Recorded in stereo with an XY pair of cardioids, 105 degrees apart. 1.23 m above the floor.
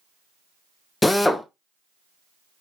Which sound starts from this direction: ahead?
A drill, at 1.0 s.